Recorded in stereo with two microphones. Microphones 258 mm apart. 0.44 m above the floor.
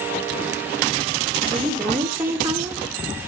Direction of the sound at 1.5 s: 10° right (ahead or behind).